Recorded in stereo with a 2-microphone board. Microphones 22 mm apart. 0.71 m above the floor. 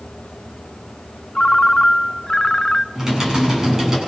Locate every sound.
1.4 s a ringtone: 30° left (ahead or behind), 0.6 m
3.0 s typing on a keyboard: 25° right (ahead or behind), 8 m